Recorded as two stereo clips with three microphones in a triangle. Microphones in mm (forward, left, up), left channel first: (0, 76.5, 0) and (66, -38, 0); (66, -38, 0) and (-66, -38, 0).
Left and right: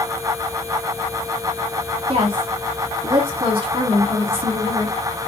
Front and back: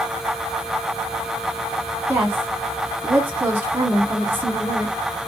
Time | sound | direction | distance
2.1 | a woman speaking | 105° right | 1.3 m